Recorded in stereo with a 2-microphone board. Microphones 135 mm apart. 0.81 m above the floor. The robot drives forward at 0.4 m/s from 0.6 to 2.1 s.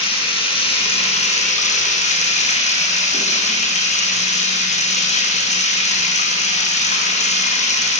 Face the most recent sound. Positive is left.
turn(degrees=60)  # may be behind; listen again after turning